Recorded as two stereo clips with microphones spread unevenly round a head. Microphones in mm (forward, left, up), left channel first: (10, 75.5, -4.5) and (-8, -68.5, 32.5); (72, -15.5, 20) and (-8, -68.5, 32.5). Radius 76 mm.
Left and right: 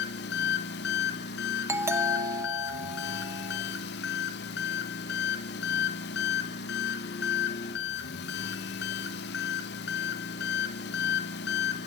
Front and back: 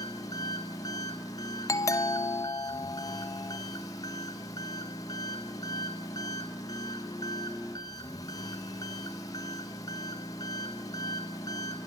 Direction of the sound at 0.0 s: 105° left.